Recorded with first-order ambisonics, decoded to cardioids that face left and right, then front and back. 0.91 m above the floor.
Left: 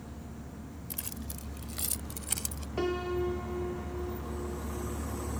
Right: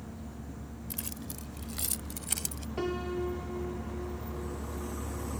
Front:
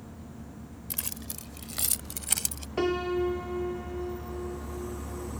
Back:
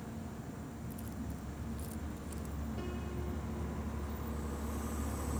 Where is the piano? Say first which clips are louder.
Left 2 dB, front 20 dB; 5° left.